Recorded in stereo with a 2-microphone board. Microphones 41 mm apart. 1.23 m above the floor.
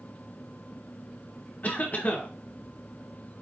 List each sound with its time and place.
1.6 s a cough: 40° left (ahead or behind), 1.4 m